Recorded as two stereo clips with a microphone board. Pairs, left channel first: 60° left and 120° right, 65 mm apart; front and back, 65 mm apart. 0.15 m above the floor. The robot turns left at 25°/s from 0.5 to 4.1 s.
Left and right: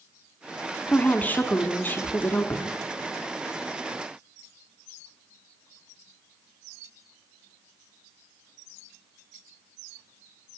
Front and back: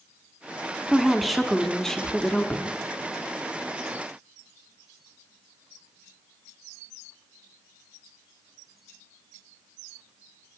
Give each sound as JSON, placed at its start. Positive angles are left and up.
{"t": 0.9, "sound": "a woman speaking", "azimuth_deg": 100, "distance_m": 1.1}